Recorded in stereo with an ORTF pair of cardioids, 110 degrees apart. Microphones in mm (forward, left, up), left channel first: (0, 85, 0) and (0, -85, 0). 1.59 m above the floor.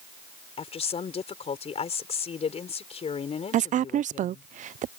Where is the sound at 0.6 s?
35° left.